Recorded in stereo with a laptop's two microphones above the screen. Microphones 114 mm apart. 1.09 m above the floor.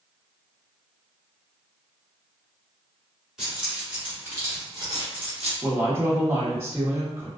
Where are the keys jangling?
5° right (ahead or behind), 1.6 m; by 5.5 s 60° right (ahead or behind), 1.1 m.